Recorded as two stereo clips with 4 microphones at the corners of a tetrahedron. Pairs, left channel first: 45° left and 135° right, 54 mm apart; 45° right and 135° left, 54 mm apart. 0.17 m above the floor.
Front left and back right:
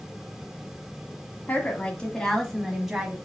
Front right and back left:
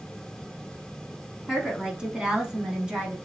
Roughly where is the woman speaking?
Ahead left.